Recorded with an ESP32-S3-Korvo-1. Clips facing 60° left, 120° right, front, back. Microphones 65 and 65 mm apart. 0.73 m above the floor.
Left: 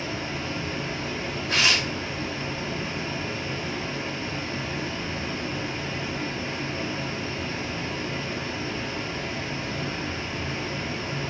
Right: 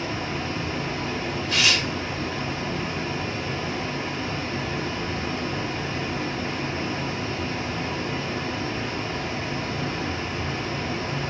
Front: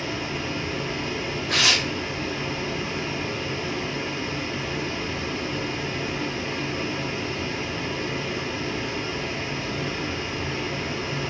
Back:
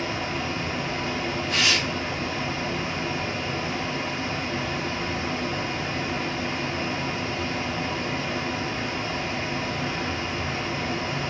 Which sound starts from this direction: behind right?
Running water, at 0.0 s.